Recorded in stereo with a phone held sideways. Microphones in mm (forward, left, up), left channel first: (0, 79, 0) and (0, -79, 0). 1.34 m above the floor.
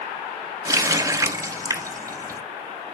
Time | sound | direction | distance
0.7 | a running tap | 20° right (ahead or behind) | 0.6 m